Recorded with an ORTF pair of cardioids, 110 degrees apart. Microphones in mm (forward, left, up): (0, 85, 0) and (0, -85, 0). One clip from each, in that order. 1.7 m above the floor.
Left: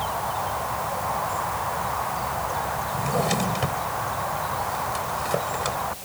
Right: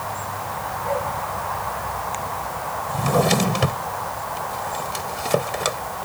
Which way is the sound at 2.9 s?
45° right.